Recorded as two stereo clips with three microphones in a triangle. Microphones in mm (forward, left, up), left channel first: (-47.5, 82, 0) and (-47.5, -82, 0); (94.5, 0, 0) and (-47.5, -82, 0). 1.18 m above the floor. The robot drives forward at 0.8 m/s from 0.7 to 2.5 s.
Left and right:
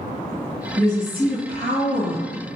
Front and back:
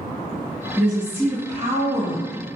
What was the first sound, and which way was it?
A woman speaking, 60° right.